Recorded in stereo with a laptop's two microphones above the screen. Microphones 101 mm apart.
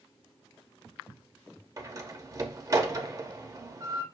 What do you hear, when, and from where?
1.8 s a door slam: 35° right (ahead or behind), 0.8 m